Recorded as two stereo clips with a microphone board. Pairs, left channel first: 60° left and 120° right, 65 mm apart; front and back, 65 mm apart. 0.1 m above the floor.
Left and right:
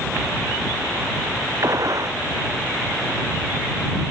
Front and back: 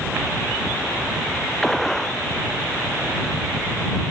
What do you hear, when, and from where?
1.6 s a gunshot: 85° right